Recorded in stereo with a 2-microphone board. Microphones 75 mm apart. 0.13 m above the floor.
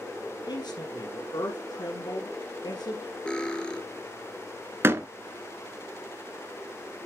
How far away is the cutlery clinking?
About 1.5 m.